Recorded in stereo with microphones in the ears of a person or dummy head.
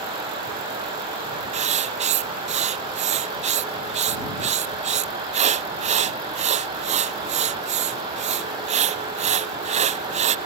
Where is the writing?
40° right (ahead or behind).